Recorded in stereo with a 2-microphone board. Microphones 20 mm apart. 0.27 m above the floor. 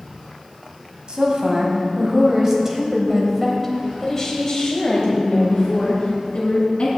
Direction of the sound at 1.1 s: 50° right (ahead or behind).